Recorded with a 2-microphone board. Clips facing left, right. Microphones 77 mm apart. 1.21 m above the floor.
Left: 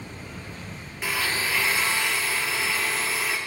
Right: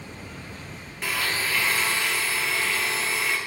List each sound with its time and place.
1.0 s a blender: 5° left (ahead or behind), 1.0 m